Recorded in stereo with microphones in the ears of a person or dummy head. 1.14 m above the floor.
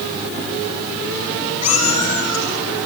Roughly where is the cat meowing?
Left.